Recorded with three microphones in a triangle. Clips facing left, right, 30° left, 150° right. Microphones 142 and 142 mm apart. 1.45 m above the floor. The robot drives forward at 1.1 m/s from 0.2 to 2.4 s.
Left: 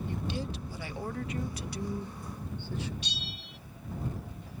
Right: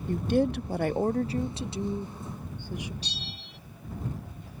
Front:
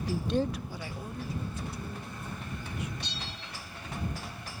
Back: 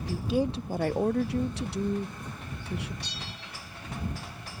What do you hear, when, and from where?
0.1 s a woman speaking: 55° right; by 2.9 s 165° right
3.0 s a bell: 40° right